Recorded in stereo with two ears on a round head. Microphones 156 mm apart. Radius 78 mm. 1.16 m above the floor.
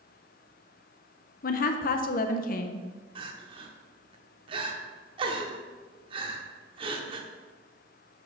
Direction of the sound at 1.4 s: 50° left (ahead or behind).